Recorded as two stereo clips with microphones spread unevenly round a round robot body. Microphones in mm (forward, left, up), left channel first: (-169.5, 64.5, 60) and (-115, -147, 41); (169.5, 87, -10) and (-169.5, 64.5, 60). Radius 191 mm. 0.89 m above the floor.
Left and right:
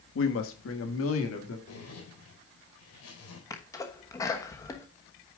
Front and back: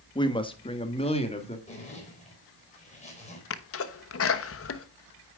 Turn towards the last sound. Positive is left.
turn(degrees=25)